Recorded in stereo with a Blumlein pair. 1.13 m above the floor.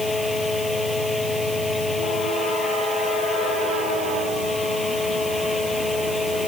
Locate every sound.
0.0 s a fan: 10° left